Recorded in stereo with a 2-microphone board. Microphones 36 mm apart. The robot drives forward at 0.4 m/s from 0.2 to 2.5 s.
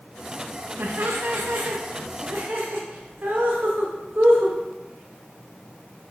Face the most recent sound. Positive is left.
turn(degrees=-65)  # may be behind; listen again after turning